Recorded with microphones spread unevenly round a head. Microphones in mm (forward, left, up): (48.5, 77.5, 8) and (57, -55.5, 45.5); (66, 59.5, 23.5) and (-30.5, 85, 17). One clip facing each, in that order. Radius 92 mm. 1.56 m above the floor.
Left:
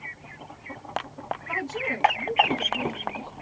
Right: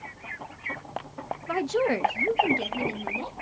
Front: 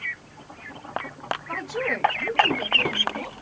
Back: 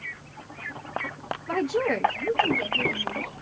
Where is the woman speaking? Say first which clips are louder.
Right 10 dB, back 7 dB; 140° right, 0.6 m; by 3.3 s 100° right, 1.4 m.